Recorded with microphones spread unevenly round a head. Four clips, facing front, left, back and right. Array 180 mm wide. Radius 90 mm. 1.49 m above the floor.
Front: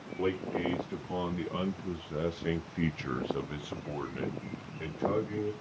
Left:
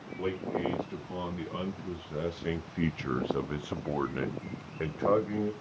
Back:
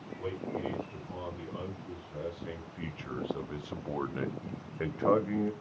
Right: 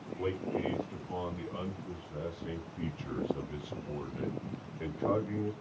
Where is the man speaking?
Straight ahead, 2.0 m; by 5.5 s 135° left, 1.5 m.